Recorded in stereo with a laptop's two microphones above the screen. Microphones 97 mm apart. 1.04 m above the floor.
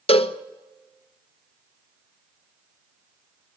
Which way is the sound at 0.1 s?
85° left.